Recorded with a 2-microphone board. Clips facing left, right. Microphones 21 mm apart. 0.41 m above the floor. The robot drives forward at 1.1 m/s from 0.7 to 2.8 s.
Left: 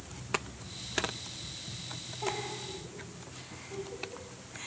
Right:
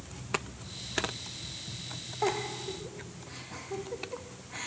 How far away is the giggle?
About 4.5 m.